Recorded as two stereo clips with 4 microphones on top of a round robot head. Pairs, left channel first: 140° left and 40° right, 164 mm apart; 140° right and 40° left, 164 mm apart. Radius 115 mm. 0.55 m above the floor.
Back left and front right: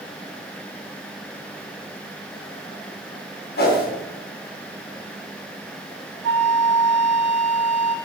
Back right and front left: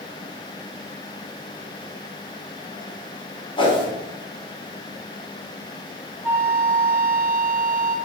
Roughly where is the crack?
I don't hear a crack.